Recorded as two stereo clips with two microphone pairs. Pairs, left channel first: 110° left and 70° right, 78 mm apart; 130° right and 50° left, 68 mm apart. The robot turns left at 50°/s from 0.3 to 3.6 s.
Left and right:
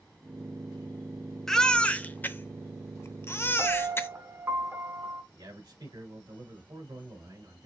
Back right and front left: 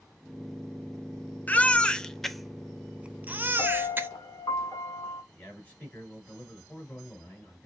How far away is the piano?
About 1.5 m.